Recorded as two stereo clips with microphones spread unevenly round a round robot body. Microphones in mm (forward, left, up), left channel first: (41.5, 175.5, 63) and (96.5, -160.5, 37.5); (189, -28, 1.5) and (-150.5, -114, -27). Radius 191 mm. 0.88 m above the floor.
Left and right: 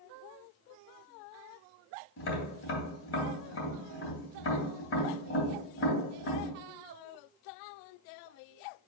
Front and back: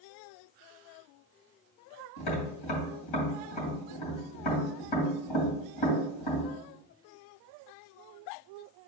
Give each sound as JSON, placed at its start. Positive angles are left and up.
{"t": 2.2, "sound": "tapping", "azimuth_deg": 45, "distance_m": 3.0}